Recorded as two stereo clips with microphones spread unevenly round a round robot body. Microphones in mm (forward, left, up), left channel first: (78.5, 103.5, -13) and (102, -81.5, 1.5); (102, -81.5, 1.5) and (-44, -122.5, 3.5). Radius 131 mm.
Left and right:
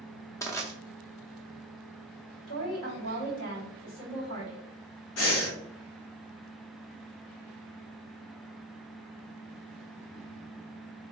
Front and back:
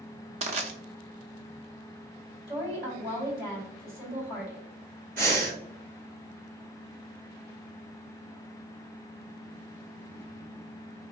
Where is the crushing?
165° left, 0.5 m.